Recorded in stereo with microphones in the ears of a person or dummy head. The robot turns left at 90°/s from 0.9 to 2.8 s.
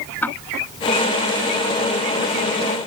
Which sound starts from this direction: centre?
Ticking, at 0.2 s.